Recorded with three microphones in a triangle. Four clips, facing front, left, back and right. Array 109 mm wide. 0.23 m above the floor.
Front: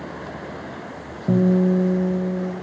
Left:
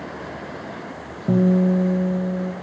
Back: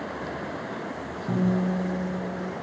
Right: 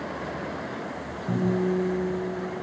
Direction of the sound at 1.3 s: 50° left.